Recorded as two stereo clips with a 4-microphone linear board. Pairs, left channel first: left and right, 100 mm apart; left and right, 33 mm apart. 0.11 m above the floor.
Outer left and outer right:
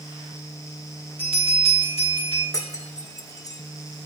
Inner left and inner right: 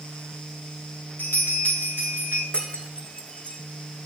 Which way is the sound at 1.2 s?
80° left.